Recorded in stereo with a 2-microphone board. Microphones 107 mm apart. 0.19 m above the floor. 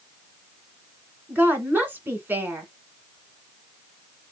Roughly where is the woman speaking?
Centre.